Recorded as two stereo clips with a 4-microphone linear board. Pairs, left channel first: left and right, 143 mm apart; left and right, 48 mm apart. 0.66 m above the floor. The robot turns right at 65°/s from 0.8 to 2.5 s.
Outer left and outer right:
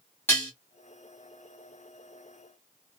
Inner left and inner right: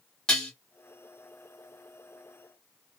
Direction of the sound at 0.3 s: 15° left (ahead or behind).